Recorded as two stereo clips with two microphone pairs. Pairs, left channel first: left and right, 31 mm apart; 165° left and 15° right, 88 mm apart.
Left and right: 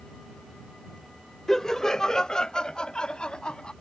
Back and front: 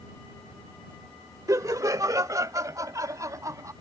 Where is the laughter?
20° left; by 3.7 s 35° left.